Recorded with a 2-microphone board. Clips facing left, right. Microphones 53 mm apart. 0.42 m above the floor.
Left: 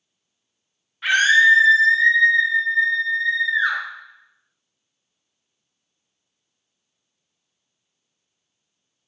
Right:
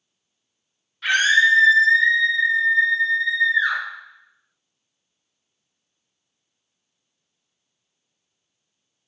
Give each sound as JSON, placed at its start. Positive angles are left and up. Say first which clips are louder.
{"t": 1.0, "sound": "a scream", "louder": "left 2 dB", "side_deg": 20, "distance_m": 1.0}